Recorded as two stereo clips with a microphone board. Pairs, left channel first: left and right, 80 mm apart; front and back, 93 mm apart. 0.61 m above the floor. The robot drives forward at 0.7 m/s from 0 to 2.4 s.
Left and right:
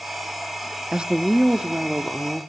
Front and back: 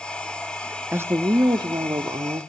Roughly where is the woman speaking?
Behind right.